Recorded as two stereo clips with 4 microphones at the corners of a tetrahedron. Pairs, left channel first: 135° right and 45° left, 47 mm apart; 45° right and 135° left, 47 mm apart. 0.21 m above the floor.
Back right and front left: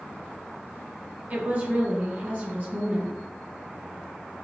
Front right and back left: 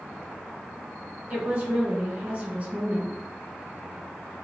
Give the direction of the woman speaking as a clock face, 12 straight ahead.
9 o'clock.